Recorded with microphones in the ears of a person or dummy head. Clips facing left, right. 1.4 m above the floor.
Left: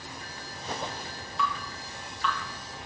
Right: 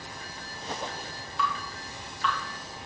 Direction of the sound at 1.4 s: 5° left (ahead or behind).